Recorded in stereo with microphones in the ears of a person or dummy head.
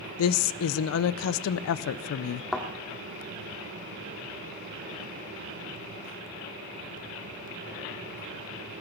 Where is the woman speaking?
75° left (ahead or behind), 0.6 m.